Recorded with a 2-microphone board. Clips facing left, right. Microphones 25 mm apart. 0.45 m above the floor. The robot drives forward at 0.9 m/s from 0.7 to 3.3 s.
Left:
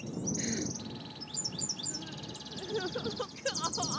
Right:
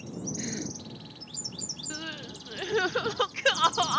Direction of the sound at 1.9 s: 60° right (ahead or behind).